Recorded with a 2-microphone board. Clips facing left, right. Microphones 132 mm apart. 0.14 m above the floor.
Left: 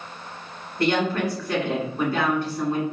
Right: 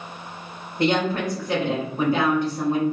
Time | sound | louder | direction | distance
0.8 | a woman speaking | right 1 dB | 20° right (ahead or behind) | 1.6 m